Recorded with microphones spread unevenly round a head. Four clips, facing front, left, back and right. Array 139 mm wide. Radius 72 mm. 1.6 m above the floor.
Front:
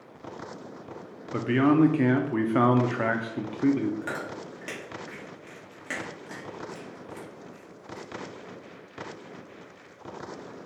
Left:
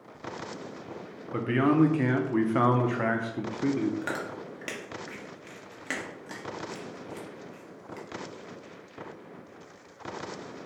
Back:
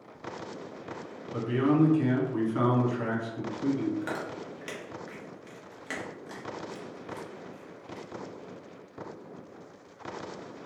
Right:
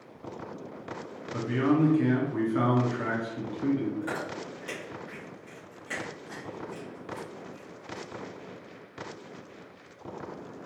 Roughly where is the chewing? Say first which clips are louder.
Even, even; left.